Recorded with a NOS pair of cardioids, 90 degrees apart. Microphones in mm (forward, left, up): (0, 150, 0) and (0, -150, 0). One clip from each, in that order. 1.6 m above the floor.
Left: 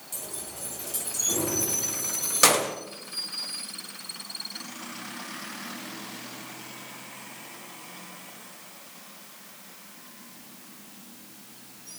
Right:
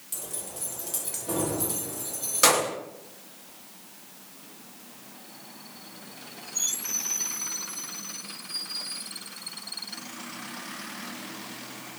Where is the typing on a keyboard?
I don't hear typing on a keyboard.